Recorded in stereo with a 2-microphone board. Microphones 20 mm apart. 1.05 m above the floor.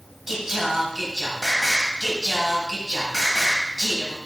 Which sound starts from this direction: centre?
Singing, at 0.3 s.